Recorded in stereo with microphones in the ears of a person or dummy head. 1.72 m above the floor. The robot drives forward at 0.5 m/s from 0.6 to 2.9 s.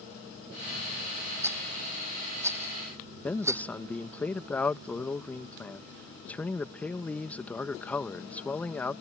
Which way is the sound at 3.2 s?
10° left (ahead or behind).